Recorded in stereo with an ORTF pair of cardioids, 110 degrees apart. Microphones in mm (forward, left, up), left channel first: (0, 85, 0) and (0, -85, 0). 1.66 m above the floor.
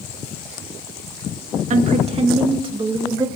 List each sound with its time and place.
1.7 s a woman speaking: 50° right, 1.8 m; by 3.3 s 20° right, 2.5 m